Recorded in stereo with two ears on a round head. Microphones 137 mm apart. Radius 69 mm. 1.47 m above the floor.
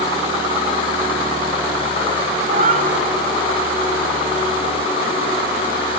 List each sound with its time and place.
2.5 s a cat meowing: 50° right (ahead or behind), 1.8 m